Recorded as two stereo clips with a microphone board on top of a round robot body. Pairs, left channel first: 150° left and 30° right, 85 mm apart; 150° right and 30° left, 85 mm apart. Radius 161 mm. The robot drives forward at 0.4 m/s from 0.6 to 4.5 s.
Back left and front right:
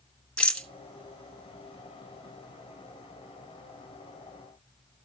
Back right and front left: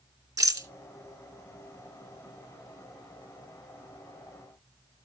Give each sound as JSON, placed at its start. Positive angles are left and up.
{"t": 0.4, "sound": "a rattle", "azimuth_deg": 70, "distance_m": 2.5}